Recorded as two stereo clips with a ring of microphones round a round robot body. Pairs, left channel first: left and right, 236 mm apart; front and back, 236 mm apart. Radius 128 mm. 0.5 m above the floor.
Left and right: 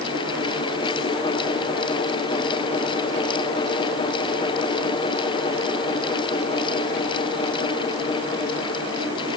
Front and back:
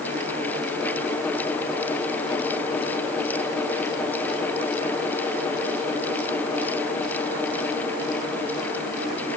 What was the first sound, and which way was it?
Only background noise.